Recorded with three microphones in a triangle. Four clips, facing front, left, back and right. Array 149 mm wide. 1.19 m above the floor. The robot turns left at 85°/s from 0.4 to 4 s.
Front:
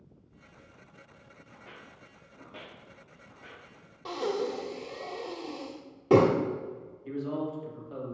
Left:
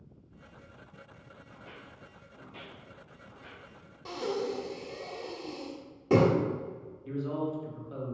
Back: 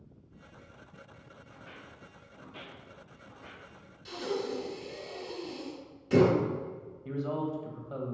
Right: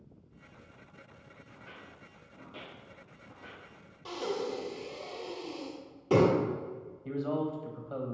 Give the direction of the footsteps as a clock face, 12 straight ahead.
10 o'clock.